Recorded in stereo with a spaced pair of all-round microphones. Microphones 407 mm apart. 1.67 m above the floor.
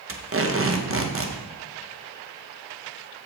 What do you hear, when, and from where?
0.1 s tape being pulled: 35° right (ahead or behind), 0.6 m